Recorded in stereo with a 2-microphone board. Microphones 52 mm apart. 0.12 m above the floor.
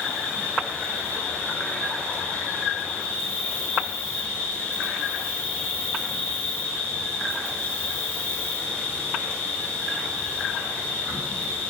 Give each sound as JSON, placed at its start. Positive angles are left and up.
{"t": 0.0, "sound": "an insect", "side_deg": 35, "distance_m": 3.0}